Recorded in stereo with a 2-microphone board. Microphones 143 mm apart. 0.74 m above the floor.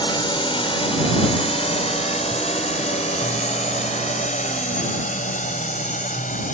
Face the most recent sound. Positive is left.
turn(degrees=70)  # may be behind; listen again after turning